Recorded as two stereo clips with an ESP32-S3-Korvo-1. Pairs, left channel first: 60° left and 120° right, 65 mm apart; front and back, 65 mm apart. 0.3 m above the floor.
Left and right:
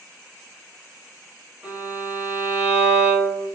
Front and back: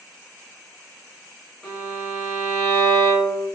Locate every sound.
1.6 s a violin: 60° right, 1.3 m